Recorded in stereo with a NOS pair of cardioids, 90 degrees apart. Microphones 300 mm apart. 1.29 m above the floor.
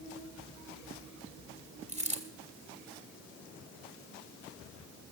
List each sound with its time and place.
1.9 s a dropped coin: 25° right, 2.5 m